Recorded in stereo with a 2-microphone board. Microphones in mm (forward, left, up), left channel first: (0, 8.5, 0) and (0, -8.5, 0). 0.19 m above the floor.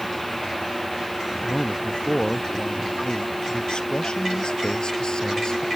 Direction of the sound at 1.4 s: 60° left (ahead or behind).